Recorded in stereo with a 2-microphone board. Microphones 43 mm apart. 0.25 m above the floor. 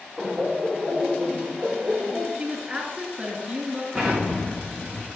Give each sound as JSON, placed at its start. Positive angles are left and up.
{"t": 0.2, "sound": "laughter", "side_deg": -10, "distance_m": 5.5}
{"t": 2.4, "sound": "a woman speaking", "side_deg": -30, "distance_m": 3.5}
{"t": 3.9, "sound": "an explosion", "side_deg": 5, "distance_m": 3.5}